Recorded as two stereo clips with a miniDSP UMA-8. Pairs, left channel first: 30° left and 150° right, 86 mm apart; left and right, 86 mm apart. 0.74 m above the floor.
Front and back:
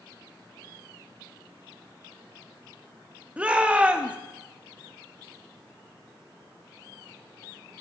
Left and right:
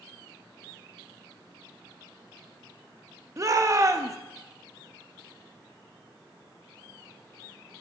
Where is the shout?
85° right, 0.7 m.